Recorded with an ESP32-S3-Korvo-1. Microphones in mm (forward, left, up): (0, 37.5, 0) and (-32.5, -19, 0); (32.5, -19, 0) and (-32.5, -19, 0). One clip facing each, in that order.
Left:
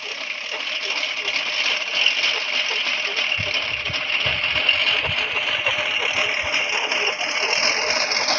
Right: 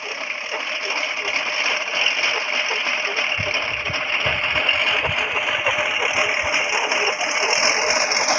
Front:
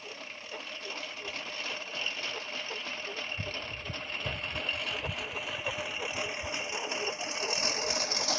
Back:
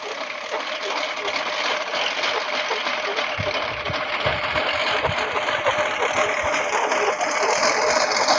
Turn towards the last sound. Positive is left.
turn(degrees=165)